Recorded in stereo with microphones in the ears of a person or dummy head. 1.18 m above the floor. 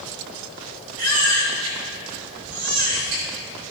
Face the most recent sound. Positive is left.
turn(degrees=-80)